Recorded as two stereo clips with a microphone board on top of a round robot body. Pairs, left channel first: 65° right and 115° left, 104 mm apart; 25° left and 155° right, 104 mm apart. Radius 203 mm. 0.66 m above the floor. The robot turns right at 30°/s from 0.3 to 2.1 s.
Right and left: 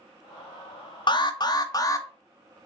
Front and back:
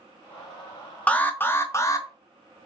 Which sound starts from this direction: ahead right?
An alarm, at 1.1 s.